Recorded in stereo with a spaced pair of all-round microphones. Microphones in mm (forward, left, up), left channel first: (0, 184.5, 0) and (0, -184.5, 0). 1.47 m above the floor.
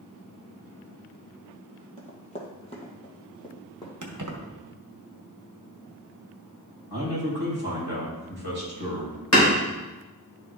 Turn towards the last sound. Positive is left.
turn(degrees=50)  # may be behind; listen again after turning